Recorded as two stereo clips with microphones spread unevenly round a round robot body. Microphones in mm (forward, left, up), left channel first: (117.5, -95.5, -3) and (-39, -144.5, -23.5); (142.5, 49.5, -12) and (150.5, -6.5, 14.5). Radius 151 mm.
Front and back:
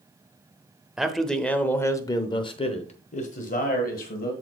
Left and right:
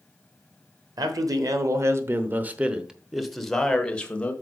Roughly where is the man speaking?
Right.